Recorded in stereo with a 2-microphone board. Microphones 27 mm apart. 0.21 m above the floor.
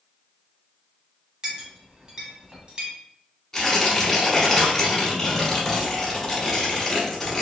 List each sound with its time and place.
1.4 s a clink: 30° right (ahead or behind), 0.9 m
3.5 s tearing paper: 10° left (ahead or behind), 1.0 m